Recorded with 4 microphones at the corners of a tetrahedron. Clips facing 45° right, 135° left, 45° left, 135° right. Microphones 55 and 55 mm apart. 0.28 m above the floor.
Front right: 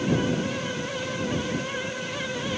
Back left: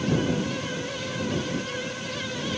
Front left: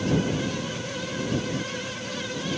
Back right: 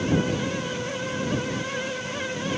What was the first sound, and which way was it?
Only background noise.